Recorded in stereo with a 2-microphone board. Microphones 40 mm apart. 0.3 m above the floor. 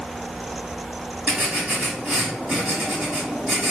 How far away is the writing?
About 2 m.